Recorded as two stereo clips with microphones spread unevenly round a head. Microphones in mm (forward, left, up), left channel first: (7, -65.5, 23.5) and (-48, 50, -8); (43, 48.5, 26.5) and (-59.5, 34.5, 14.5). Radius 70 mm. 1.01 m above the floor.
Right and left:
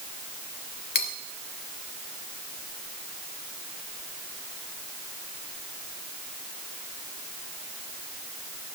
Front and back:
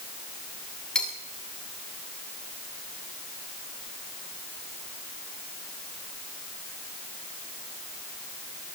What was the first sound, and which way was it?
Cutlery clinking, 75° right.